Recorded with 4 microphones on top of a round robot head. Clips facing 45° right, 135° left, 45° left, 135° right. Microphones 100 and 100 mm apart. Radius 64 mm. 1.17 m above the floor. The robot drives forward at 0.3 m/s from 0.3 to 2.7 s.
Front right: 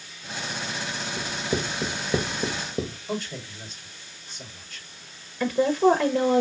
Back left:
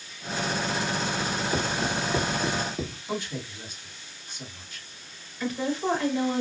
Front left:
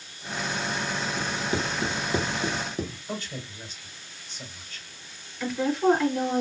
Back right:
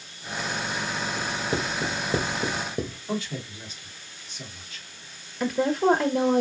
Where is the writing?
80° right, 2.0 m; by 3.0 s 90° right, 2.0 m.